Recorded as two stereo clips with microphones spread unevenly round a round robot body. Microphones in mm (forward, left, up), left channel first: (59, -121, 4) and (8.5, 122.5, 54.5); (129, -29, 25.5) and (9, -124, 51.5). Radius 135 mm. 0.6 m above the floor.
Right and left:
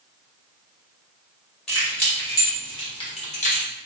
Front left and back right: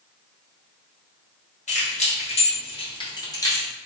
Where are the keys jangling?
5° left, 2.0 m; by 3.7 s 30° right, 1.3 m.